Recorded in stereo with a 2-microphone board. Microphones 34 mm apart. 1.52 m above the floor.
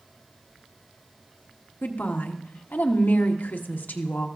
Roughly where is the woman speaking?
Left.